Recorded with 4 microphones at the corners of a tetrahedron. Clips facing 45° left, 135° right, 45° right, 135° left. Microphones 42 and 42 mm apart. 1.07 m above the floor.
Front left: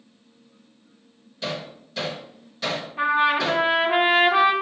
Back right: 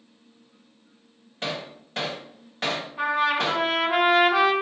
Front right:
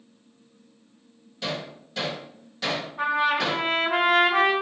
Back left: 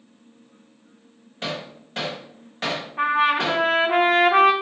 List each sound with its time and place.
1.4 s hammering: straight behind, 1.0 m
3.0 s a trumpet: 125° left, 1.1 m